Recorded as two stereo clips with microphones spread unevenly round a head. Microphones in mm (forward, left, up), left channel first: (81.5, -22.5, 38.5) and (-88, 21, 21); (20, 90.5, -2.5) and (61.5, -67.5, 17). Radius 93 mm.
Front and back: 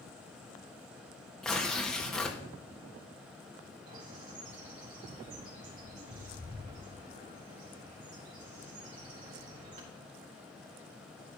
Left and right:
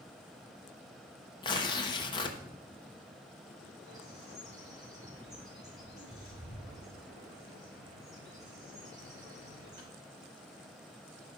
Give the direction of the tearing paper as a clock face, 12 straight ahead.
10 o'clock.